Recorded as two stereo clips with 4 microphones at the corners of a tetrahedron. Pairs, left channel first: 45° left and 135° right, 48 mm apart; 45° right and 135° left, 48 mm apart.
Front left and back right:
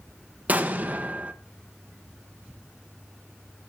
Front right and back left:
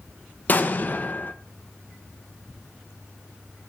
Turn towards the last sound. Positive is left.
turn(degrees=-85)